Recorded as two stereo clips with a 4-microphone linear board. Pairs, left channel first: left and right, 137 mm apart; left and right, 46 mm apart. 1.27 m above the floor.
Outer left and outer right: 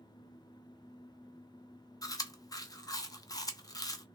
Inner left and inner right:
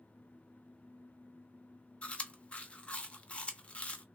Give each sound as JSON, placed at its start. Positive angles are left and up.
{"t": 2.0, "sound": "chewing", "side_deg": 25, "distance_m": 0.7}